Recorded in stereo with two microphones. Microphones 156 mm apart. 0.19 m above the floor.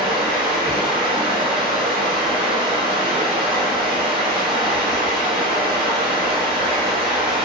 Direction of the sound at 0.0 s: 35° right (ahead or behind).